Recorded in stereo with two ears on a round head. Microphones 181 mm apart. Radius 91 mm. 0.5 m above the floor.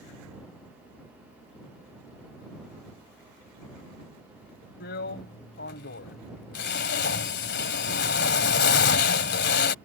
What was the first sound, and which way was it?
A drill, 55° left (ahead or behind).